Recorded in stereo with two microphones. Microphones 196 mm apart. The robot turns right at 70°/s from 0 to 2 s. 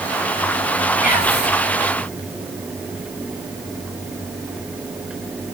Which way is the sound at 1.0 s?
50° left.